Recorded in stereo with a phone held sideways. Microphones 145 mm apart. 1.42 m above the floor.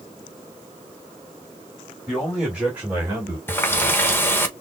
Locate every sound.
2.1 s a man speaking: centre (ahead or behind), 3 m; by 3.4 s 30° right (ahead or behind), 2 m
3.5 s a running tap: 15° left (ahead or behind), 1.0 m